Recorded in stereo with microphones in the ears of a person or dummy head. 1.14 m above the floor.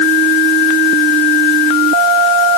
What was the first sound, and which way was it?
Only background noise.